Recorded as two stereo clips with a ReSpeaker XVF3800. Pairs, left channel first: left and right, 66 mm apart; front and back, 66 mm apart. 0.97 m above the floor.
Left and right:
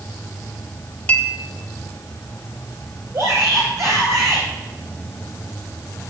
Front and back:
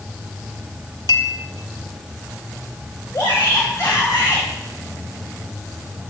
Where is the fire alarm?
No fire alarm in this recording.